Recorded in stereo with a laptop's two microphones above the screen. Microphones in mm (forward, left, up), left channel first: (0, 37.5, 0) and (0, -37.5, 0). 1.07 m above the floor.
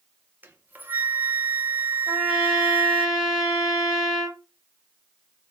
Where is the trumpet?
10° right (ahead or behind), 1.6 m.